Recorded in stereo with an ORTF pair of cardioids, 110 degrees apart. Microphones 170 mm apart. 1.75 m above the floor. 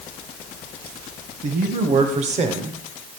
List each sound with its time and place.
1.4 s a man speaking: 50° right, 1.7 m; by 2.8 s 35° right, 0.9 m